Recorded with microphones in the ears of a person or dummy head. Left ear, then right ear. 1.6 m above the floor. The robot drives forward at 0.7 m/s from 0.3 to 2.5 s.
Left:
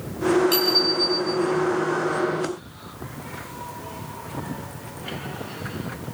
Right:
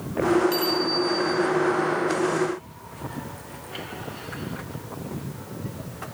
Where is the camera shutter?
No camera shutter in this recording.